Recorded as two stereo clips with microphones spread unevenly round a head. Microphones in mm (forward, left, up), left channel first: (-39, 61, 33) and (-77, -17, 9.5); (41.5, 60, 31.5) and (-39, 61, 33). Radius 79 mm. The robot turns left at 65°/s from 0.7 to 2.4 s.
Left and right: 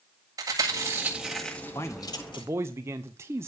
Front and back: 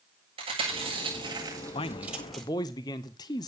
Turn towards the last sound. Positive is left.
turn(degrees=-50)